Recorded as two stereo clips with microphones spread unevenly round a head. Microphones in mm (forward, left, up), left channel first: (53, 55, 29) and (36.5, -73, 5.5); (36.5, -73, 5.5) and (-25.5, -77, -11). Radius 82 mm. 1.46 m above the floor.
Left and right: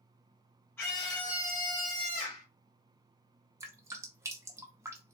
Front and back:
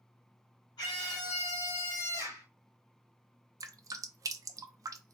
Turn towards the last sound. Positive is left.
turn(degrees=-165)